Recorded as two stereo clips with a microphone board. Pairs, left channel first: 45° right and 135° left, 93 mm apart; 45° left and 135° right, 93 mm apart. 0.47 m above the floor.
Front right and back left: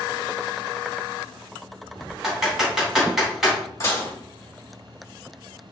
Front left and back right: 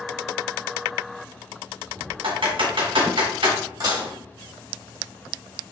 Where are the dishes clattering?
100° right, 1.5 m.